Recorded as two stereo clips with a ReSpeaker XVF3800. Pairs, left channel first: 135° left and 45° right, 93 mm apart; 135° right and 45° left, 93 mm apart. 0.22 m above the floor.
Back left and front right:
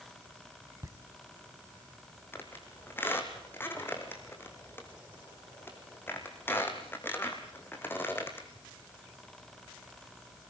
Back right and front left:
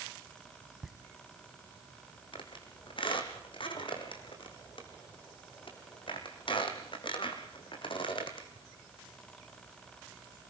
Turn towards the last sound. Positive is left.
turn(degrees=-160)